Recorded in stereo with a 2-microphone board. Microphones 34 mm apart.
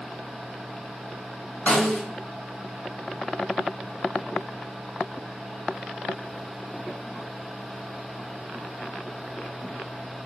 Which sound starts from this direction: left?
A snare drum, at 1.7 s.